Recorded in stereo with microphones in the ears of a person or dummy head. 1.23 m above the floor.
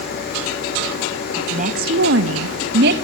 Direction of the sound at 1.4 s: 35° right (ahead or behind).